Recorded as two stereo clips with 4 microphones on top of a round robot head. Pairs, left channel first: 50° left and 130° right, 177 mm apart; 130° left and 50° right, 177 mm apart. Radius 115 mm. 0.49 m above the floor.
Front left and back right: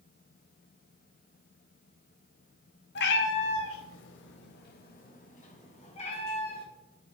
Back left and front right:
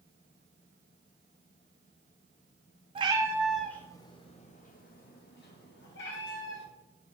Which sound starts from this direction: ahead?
A cat meowing, at 3.0 s.